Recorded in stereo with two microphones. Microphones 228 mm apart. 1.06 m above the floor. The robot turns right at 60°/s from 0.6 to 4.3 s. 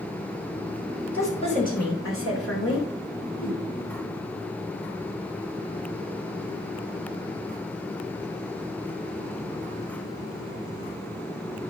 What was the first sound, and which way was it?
A woman speaking, 5° left.